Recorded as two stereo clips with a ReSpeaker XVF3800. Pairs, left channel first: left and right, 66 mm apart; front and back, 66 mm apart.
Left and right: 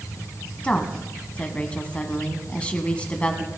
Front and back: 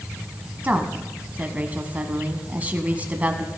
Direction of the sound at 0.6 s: 145° left.